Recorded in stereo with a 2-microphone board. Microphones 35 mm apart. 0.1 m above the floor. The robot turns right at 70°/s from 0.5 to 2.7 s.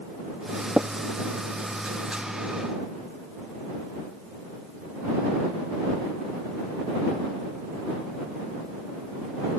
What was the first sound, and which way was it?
Tapping, 10° right (ahead or behind).